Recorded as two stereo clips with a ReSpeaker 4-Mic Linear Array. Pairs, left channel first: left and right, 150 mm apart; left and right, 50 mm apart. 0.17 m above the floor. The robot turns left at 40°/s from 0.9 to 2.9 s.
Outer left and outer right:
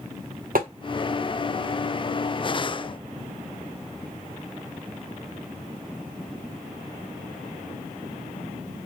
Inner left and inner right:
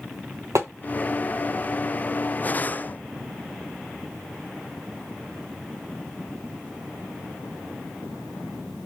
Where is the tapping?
75° right (ahead or behind), 0.9 m.